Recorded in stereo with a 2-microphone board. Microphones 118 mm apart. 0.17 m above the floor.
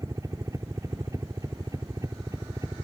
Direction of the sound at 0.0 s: 25° right (ahead or behind).